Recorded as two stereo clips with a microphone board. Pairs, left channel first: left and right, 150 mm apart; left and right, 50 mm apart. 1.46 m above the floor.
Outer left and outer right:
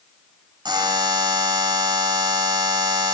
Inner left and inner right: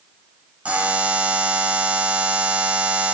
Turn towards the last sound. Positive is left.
turn(degrees=-30)  # may be behind; listen again after turning